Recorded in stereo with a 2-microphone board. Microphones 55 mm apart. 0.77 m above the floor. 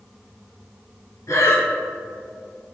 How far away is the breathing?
About 2.5 m.